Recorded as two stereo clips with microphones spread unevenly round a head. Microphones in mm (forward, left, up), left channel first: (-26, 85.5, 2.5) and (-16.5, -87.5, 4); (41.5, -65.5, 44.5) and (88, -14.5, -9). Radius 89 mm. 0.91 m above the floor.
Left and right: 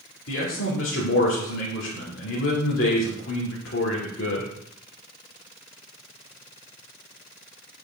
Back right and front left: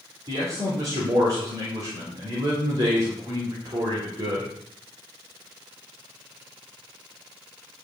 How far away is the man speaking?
About 2.5 m.